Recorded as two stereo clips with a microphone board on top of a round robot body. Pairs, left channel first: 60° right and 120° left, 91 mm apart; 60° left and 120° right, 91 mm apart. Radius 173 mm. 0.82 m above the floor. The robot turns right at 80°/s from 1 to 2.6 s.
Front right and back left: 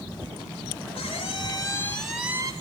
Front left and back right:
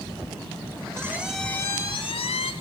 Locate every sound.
0.9 s a squeak: 55° right, 1.2 m; by 2.5 s 65° left, 1.2 m